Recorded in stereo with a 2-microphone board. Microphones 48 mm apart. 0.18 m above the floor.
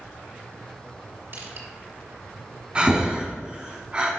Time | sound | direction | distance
1.3 | crushing | 50° right (ahead or behind) | 2.5 m
2.8 | breathing | 25° right (ahead or behind) | 2 m